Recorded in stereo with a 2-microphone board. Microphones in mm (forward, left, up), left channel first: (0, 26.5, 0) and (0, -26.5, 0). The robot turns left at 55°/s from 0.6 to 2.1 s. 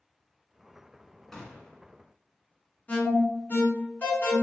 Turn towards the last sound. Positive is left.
turn(degrees=30)  # may be behind; listen again after turning